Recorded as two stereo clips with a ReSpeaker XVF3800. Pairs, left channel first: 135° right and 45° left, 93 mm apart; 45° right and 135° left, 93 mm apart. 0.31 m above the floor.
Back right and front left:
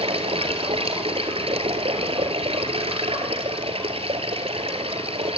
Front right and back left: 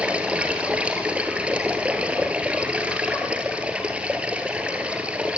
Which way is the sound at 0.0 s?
55° left.